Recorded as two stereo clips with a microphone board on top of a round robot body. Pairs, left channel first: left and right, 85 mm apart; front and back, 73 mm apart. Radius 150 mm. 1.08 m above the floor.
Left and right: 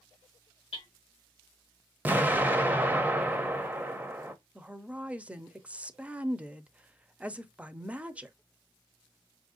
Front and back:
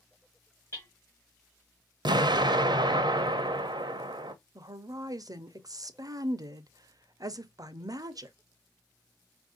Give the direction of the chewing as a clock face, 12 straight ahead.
I don't hear chewing.